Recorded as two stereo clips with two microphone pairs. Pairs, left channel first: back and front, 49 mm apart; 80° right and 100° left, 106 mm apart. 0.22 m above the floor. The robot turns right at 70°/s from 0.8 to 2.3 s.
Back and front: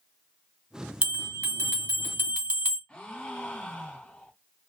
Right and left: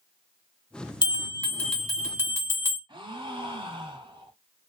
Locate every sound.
1.0 s a bell: 50° right, 1.3 m; by 2.8 s 45° left, 1.3 m
2.9 s a gasp: 115° left, 0.7 m